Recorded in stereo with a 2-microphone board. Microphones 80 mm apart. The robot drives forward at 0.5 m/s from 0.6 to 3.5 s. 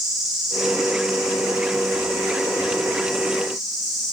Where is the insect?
5° right (ahead or behind), 2.5 m; by 4.1 s centre (ahead or behind), 4 m.